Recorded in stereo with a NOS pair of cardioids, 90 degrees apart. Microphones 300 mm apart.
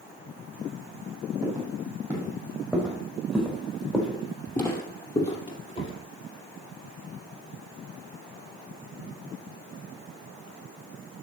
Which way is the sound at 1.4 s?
10° right.